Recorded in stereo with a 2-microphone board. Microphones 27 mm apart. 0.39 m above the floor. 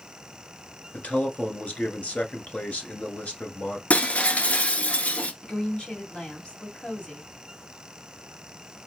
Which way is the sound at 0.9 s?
55° left (ahead or behind).